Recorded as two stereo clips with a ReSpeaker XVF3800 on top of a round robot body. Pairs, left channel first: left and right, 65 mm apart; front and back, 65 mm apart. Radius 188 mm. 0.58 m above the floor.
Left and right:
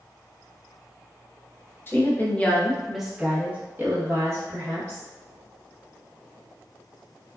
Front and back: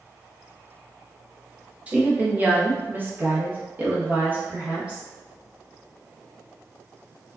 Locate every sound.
1.9 s a woman speaking: 120° left, 1.1 m; by 5.0 s 115° right, 1.5 m